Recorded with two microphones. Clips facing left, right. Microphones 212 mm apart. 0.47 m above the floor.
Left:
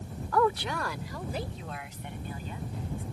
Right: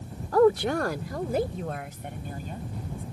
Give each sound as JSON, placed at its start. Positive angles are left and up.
{"t": 0.3, "sound": "a woman speaking", "side_deg": -35}